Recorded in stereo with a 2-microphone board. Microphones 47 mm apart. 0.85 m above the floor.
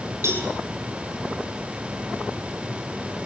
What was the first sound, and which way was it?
A cowbell, 60° right (ahead or behind).